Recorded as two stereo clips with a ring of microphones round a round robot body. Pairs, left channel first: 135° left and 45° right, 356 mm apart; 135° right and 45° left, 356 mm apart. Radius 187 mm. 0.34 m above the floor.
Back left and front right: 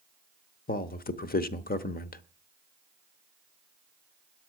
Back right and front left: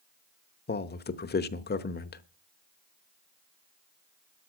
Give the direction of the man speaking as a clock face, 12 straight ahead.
6 o'clock.